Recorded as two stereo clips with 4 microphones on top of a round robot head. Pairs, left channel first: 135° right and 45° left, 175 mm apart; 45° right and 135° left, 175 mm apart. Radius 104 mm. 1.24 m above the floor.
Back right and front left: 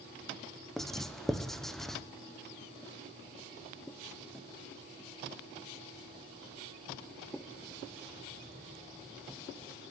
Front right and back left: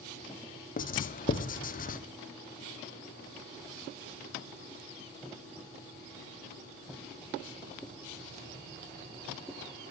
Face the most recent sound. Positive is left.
turn(degrees=-45)